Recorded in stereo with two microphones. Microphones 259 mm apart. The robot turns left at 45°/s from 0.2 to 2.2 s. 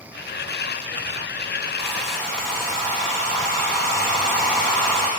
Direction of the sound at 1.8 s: 15° right (ahead or behind).